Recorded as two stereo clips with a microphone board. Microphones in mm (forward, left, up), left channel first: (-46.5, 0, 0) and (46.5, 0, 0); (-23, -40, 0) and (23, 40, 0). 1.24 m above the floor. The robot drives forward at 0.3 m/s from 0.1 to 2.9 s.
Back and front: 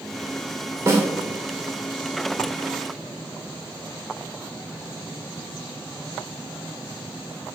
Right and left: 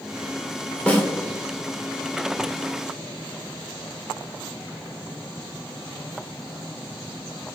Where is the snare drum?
50° right, 1.2 m; by 1.1 s 55° right, 1.2 m.